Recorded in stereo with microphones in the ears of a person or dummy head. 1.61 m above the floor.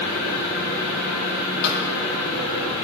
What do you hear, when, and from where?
0.0 s an engine running: 40° left (ahead or behind), 2.5 m
1.6 s a snare drum: 60° left (ahead or behind), 1.4 m